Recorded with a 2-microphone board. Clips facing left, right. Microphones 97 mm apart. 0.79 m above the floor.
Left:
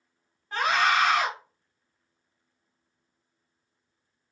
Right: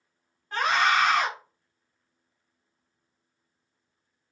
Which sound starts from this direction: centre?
A scream, at 0.5 s.